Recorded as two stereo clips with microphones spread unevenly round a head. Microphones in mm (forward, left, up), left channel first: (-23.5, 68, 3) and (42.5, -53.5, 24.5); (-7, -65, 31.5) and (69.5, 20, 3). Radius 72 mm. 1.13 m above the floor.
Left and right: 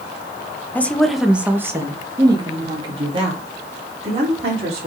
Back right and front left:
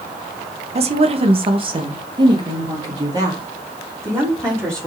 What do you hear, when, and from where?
0.8 s a woman speaking: 45° left, 1.3 m; by 4.9 s 15° right, 4 m